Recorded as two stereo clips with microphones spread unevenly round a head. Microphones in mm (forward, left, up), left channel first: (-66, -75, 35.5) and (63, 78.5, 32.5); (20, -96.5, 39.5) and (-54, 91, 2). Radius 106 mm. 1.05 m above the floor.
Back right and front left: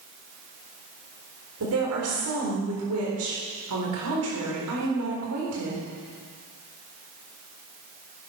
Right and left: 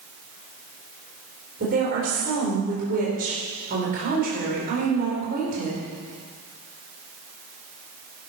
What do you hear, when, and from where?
1.6 s a woman speaking: 60° left, 4 m